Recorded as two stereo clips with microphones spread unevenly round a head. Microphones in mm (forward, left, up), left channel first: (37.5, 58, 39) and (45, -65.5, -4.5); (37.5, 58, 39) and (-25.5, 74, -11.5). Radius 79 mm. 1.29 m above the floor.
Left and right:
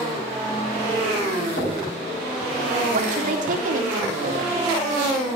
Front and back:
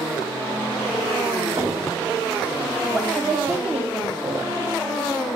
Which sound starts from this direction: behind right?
A woman speaking, at 2.9 s.